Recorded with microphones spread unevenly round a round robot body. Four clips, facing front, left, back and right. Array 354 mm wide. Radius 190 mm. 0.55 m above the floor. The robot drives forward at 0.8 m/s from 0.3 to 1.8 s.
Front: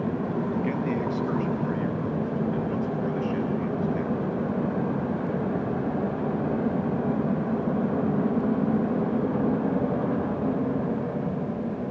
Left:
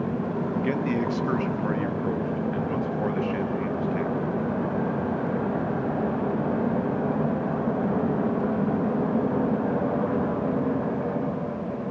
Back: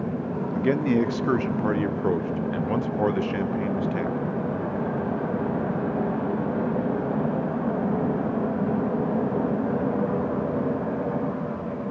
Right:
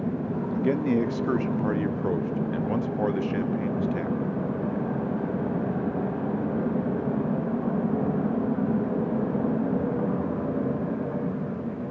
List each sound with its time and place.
0.6 s a man speaking: 135° right, 1.2 m; by 4.2 s 160° right, 1.9 m